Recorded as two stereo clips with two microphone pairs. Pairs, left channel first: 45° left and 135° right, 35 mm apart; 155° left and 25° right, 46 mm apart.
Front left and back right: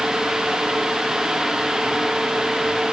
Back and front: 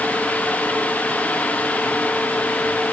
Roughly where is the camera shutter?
No camera shutter in this recording.